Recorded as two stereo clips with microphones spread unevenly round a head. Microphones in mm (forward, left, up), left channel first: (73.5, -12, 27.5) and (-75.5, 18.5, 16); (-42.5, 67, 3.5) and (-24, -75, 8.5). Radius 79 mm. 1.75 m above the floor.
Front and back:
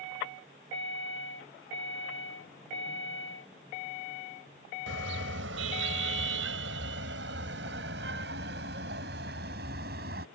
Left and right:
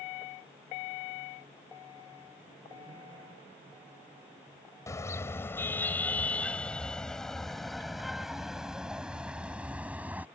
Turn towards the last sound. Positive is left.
turn(degrees=-160)